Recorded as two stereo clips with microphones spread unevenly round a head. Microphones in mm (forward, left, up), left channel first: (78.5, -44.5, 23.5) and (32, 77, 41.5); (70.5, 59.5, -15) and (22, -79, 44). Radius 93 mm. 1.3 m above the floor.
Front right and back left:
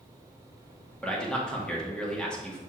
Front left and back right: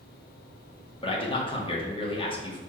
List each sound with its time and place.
1.0 s a man speaking: 15° left, 2 m